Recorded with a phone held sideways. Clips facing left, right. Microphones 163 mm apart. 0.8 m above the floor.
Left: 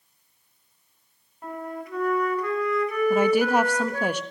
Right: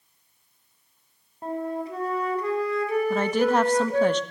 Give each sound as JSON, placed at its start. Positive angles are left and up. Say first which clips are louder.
{"t": 1.4, "sound": "a flute", "louder": "right 5 dB", "side_deg": -30, "distance_m": 4.5}
{"t": 3.1, "sound": "a woman speaking", "louder": "left 3 dB", "side_deg": 10, "distance_m": 1.4}